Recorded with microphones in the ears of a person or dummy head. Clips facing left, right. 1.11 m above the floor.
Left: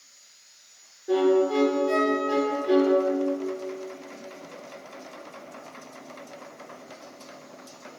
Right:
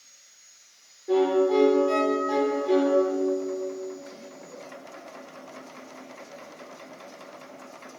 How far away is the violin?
About 1.9 m.